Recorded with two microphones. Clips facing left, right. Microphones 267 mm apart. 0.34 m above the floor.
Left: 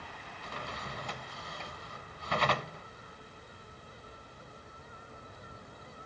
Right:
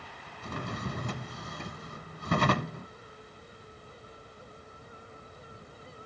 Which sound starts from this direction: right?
A drawer, at 0.4 s.